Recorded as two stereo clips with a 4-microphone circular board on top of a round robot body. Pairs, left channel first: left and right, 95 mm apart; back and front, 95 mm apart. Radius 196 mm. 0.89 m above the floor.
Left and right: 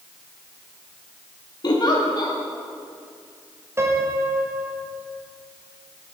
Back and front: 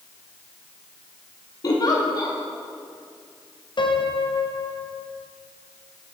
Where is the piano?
150° right, 2.0 m.